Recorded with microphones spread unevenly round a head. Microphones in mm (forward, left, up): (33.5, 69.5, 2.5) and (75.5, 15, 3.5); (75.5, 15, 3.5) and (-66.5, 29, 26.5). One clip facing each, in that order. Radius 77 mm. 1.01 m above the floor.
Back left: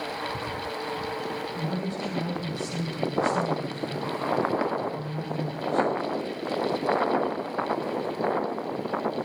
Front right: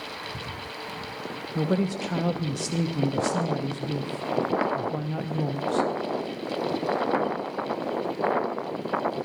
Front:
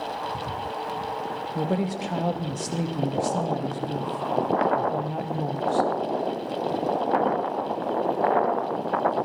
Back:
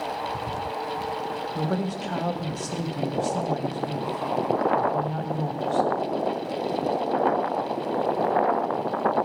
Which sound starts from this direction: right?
A woman speaking, at 1.6 s.